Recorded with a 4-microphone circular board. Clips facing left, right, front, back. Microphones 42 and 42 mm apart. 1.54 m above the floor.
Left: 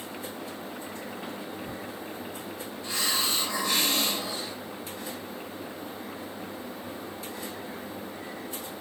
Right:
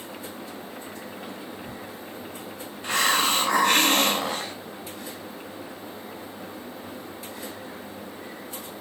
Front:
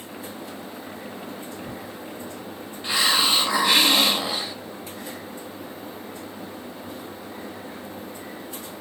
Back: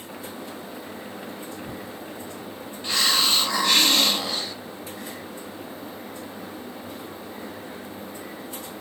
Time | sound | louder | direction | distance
2.8 | a hiss | right 8 dB, front 1 dB | 75° right | 1.4 m